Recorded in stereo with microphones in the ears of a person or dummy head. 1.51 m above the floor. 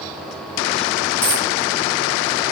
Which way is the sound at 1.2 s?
10° left (ahead or behind).